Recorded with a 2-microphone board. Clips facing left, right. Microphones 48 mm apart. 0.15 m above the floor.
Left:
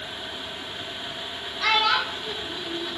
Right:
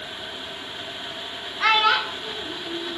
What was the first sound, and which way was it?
A child speaking, 35° right (ahead or behind).